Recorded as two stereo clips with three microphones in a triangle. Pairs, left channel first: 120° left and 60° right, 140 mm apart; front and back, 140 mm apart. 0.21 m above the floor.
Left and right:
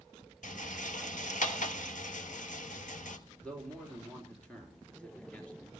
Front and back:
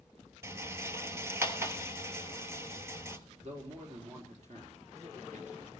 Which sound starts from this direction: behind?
A man speaking, at 3.4 s.